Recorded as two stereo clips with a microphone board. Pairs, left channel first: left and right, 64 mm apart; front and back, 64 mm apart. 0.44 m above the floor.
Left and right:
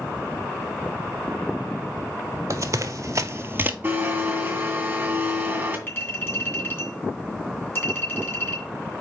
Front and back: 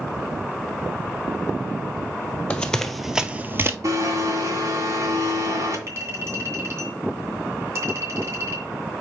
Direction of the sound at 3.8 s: 155° right.